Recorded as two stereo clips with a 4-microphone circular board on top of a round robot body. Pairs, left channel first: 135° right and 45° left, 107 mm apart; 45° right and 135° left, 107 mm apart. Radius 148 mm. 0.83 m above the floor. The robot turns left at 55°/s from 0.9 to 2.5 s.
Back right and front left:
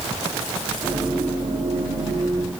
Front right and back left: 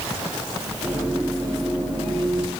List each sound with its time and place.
Only background noise.